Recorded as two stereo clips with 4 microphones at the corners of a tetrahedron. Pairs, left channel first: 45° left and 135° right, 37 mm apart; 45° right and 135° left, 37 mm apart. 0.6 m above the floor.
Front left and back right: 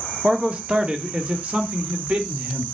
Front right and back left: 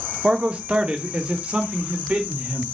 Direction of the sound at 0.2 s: Straight behind.